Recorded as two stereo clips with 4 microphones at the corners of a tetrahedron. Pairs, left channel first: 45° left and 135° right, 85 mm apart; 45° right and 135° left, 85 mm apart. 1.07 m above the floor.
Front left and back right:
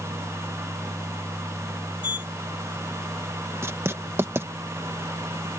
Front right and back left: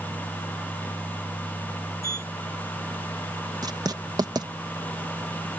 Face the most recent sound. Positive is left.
turn(degrees=170)